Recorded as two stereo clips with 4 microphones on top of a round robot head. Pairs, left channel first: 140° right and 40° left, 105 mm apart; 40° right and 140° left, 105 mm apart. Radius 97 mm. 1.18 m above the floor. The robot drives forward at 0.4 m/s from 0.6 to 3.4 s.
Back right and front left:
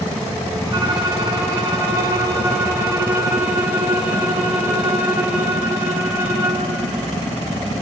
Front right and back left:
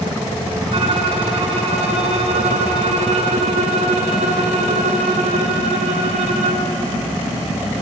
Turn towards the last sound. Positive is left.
turn(degrees=110)